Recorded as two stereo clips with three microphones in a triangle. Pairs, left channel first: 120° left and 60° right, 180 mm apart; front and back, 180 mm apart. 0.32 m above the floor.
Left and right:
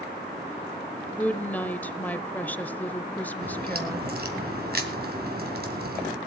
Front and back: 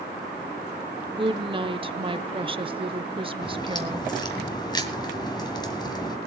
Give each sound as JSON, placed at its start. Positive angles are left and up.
{"t": 1.2, "sound": "a woman speaking", "azimuth_deg": -170, "distance_m": 0.9}
{"t": 3.4, "sound": "a crack", "azimuth_deg": -65, "distance_m": 2.5}